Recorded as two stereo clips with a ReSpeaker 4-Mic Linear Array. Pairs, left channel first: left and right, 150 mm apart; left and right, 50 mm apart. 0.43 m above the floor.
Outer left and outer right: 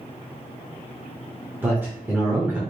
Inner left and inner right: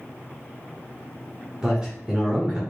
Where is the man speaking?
15° right (ahead or behind), 0.8 m.